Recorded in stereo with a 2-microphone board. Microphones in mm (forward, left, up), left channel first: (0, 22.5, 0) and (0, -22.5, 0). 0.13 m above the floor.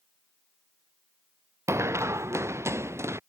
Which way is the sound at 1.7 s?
85° right.